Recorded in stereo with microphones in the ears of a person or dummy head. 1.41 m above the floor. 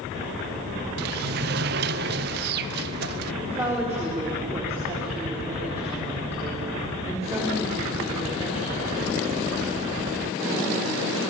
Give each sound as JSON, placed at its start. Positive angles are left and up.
{"t": 1.0, "sound": "a sliding door", "side_deg": -50, "distance_m": 0.7}
{"t": 3.4, "sound": "a woman speaking", "side_deg": -10, "distance_m": 4.5}